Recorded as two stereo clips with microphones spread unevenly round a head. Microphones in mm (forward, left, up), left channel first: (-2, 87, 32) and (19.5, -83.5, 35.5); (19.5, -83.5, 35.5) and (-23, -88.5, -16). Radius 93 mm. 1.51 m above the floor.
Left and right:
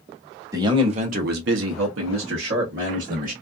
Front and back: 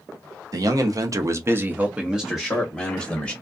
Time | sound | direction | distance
0.5 | a man speaking | 155° right | 1.0 m